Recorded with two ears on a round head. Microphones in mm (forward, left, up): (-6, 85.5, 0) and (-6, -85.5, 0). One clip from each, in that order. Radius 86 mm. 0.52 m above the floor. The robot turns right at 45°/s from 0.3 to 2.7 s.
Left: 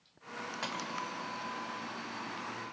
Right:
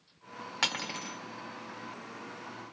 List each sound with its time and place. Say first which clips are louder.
0.6 s cutlery clinking: right 8 dB; 65° right (ahead or behind), 1.1 m; by 1.2 s 45° right (ahead or behind), 1.1 m